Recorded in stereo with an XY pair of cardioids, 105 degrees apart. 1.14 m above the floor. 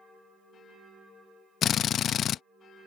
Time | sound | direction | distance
1.6 | a drill | 60° left | ?